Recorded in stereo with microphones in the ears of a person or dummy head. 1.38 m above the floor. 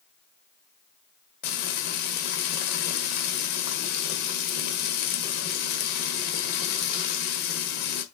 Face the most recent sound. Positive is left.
turn(degrees=55)  # may be behind; listen again after turning